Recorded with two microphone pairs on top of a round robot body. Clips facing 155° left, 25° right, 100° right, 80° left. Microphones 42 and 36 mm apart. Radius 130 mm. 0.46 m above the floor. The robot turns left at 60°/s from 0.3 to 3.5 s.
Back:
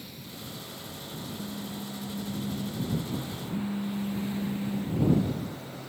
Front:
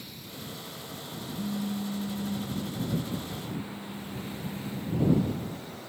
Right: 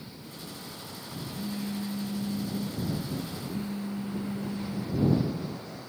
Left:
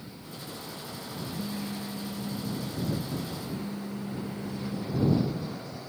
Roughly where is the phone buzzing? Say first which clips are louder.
Front 8 dB, right 3 dB; ahead right.